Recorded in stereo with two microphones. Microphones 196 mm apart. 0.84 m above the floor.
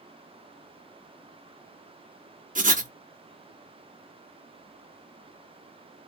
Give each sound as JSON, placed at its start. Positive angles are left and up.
{"t": 2.5, "sound": "writing", "side_deg": -40, "distance_m": 0.9}